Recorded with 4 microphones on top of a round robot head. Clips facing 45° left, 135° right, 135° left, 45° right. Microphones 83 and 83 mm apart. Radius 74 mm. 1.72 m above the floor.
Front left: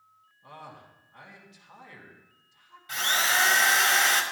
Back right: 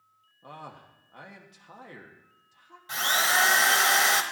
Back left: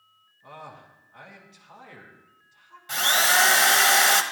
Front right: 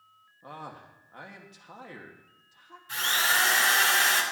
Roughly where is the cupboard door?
I don't hear a cupboard door.